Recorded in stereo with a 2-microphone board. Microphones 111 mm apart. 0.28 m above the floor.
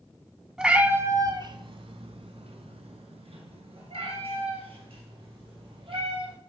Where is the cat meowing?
5° right (ahead or behind), 0.9 m; by 6.3 s 60° right (ahead or behind), 4 m.